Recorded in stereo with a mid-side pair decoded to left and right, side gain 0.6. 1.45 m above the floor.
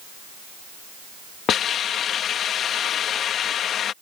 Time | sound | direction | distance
1.5 | a hiss | 50° left | ?